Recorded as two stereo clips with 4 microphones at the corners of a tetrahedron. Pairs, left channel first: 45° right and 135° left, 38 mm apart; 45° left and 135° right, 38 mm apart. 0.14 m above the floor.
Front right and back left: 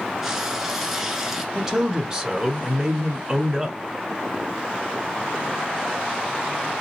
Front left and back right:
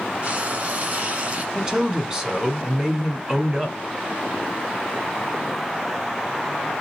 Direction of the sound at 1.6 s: Straight behind.